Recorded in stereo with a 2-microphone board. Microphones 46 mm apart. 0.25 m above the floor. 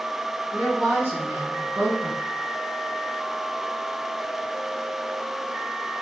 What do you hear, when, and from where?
0.5 s a woman speaking: 35° right (ahead or behind), 2.5 m; by 2.2 s 60° right (ahead or behind), 2 m